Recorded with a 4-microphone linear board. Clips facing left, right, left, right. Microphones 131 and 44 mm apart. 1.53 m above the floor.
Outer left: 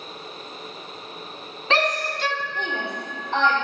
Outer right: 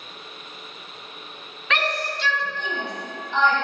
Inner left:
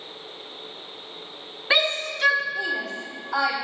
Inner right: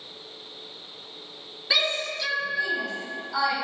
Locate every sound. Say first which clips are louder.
1.7 s a shout: outer left 3 dB, inner left 3 dB; 30° left (ahead or behind), 0.8 m; by 3.5 s 65° left (ahead or behind), 2 m